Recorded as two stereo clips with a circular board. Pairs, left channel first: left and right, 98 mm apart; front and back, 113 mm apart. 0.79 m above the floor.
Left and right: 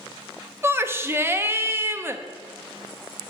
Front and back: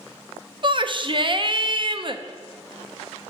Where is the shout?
150° right, 0.5 m.